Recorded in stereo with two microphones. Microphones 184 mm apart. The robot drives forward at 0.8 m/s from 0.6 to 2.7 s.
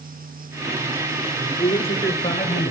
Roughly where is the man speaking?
Centre.